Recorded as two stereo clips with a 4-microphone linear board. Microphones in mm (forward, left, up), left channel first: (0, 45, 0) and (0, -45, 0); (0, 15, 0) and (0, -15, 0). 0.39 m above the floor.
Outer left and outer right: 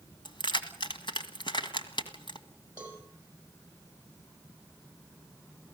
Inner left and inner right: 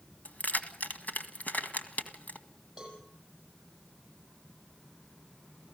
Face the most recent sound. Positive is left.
turn(degrees=-15)  # may be behind; listen again after turning